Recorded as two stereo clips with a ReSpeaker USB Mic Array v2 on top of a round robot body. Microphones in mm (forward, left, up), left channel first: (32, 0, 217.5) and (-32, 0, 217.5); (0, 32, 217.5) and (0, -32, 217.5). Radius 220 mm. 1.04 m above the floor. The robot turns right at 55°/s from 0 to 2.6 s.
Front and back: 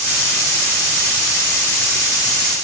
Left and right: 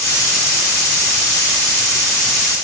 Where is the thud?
I don't hear a thud.